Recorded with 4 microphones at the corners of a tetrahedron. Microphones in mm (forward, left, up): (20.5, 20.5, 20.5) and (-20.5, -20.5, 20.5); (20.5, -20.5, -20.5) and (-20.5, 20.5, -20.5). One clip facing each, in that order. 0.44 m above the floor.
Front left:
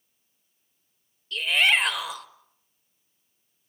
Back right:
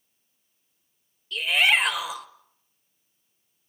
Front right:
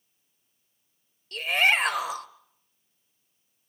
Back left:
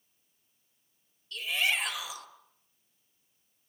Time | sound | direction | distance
1.3 | a shout | 50° right | 1.3 m